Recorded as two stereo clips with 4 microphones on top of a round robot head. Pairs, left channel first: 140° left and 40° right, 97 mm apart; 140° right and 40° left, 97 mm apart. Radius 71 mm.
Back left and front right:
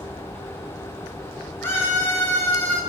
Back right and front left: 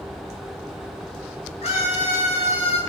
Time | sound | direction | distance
1.6 | a scream | 145° right | 8.5 m